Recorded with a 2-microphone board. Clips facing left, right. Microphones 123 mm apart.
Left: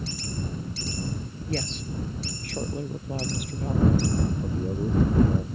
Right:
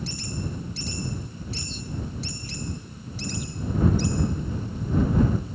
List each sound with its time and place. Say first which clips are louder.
1.5 s a woman speaking: left 7 dB; 75° left (ahead or behind); by 4.1 s 70° left (ahead or behind)
4.4 s a man speaking: left 4 dB; 75° left (ahead or behind)